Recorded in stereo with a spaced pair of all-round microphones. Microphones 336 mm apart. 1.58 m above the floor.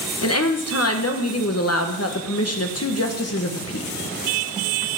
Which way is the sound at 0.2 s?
45° left (ahead or behind).